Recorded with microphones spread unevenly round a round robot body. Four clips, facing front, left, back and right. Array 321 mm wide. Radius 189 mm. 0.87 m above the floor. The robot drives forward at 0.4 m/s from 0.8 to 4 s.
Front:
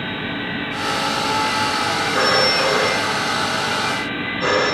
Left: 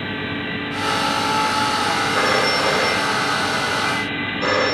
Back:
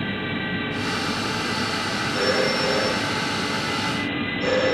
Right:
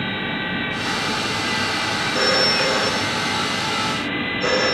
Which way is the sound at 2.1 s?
35° left.